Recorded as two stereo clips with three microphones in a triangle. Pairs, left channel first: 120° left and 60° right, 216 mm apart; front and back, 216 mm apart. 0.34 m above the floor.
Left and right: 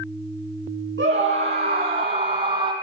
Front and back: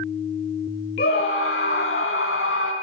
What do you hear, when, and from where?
1.0 s a scream: 35° right, 3.5 m; by 2.7 s 5° left, 3 m